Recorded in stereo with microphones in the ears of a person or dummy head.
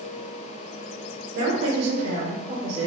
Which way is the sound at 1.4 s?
60° right (ahead or behind).